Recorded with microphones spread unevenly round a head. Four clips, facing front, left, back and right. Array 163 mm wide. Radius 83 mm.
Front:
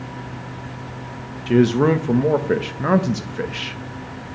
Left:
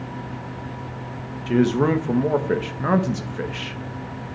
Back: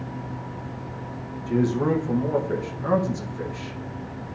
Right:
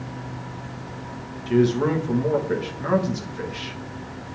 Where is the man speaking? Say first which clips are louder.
Left 1 dB, front 7 dB; 20° left, 1.4 m.